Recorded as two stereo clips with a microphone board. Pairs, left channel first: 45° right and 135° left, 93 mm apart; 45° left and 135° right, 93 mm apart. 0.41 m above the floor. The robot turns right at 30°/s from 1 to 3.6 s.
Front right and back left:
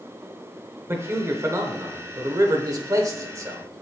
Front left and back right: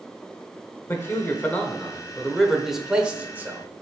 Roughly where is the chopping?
No chopping in this recording.